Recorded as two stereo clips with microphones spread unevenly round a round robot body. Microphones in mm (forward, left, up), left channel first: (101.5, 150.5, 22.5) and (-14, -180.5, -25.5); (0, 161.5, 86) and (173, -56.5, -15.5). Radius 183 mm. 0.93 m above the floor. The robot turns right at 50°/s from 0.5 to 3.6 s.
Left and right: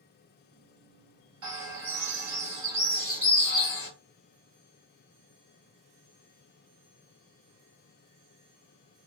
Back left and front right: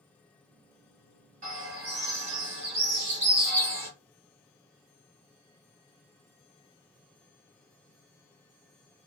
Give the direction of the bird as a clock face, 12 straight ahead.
3 o'clock.